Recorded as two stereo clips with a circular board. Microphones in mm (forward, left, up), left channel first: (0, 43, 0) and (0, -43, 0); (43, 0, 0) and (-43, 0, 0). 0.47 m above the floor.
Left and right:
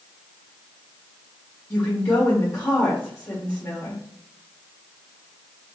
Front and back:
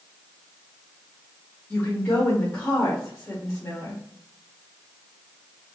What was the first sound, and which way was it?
A woman speaking, 60° left.